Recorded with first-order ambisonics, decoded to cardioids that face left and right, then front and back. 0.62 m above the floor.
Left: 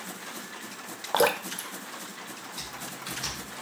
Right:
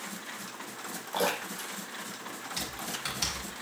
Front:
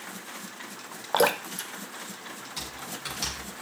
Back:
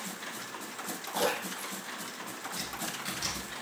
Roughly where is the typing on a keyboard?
Ahead right.